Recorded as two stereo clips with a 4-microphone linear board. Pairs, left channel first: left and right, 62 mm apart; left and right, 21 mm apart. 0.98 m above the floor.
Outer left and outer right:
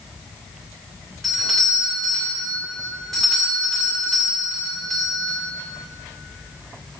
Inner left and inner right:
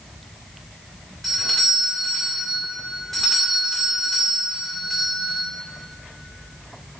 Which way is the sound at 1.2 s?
5° left (ahead or behind).